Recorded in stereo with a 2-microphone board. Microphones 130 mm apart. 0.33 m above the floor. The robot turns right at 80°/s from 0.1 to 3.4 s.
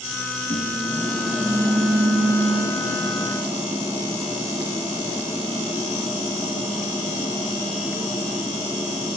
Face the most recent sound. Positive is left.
turn(degrees=-5)